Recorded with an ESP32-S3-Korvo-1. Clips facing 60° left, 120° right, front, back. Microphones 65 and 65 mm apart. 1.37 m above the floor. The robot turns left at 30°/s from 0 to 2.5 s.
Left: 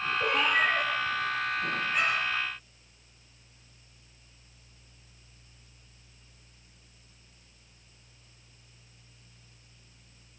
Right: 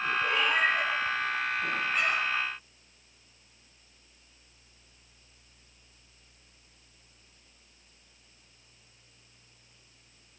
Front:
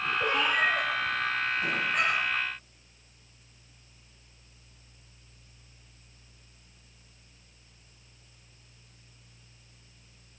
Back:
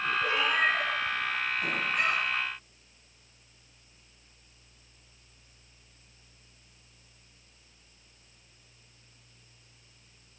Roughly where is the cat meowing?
Ahead left.